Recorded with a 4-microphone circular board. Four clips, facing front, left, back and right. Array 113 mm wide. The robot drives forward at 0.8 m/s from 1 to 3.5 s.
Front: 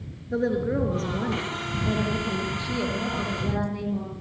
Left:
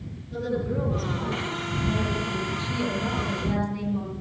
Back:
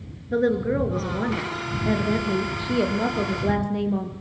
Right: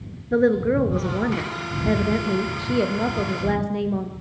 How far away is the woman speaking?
About 3.5 m.